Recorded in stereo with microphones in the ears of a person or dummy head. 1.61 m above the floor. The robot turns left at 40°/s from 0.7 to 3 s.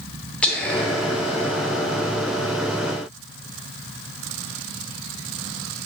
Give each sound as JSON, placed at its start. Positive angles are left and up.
{"t": 0.4, "sound": "whispering", "azimuth_deg": 175, "distance_m": 0.5}